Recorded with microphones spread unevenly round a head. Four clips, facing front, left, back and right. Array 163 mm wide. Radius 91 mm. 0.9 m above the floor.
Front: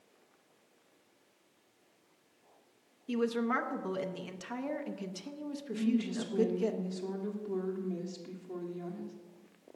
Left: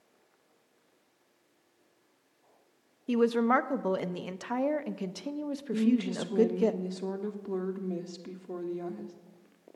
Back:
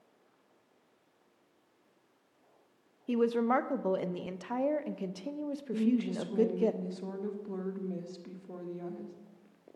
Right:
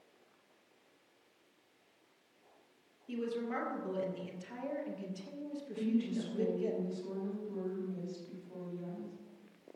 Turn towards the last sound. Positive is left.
turn(degrees=100)